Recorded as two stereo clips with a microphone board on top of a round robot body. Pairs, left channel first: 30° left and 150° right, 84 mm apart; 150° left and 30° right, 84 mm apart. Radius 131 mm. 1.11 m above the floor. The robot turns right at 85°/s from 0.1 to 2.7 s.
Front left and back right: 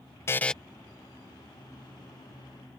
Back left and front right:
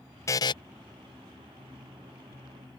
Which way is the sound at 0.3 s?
90° left.